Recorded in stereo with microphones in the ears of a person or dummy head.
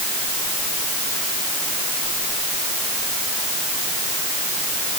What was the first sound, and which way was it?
Only background noise.